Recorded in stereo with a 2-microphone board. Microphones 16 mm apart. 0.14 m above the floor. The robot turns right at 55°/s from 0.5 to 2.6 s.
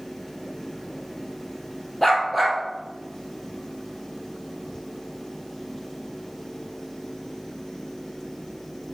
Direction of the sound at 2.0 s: 165° left.